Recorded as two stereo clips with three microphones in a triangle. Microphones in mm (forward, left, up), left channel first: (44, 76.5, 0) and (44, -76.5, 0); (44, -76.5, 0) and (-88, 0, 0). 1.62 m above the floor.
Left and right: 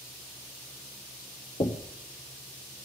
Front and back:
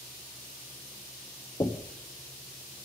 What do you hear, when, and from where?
1.6 s knocking: 35° left, 0.7 m